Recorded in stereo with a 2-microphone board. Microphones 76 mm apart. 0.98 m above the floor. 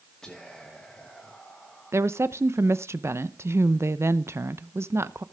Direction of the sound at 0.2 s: 10° left (ahead or behind).